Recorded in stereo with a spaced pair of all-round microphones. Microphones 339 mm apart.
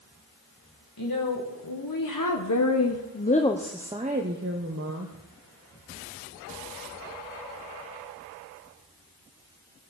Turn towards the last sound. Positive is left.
turn(degrees=-50)  # may be behind; listen again after turning